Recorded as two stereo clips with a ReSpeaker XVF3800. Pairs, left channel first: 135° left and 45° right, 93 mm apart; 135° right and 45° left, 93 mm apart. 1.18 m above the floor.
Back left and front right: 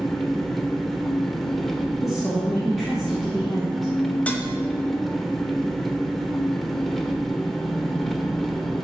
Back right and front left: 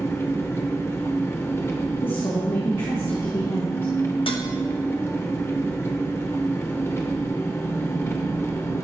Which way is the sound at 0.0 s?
140° right.